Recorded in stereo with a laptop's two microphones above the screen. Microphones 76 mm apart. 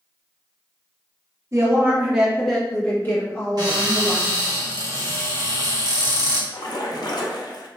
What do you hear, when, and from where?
1.5 s a woman speaking: 40° right (ahead or behind), 0.9 m; by 4.2 s 45° left (ahead or behind), 1.8 m
3.6 s a cupboard door: 60° right (ahead or behind), 1.5 m
6.5 s a splash: 70° left (ahead or behind), 0.6 m